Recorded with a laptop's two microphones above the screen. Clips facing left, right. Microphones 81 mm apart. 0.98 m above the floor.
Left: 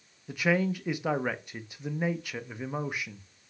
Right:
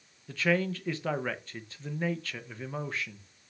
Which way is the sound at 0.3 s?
15° left (ahead or behind).